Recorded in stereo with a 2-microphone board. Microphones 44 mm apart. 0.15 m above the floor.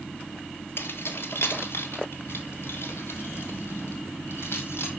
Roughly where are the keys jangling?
Left.